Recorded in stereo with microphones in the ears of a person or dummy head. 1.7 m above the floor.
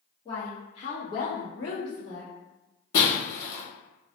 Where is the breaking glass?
40° left (ahead or behind), 1.1 m.